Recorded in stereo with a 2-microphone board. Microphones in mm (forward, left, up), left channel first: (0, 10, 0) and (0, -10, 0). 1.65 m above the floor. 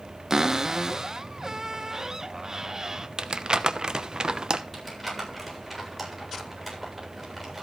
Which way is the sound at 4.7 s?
5° left (ahead or behind).